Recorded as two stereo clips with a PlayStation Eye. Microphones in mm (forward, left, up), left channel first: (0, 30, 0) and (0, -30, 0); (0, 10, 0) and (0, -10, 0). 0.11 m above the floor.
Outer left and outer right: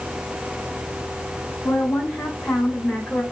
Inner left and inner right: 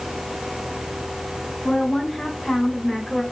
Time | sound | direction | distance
1.6 | a woman speaking | 25° left (ahead or behind) | 8 m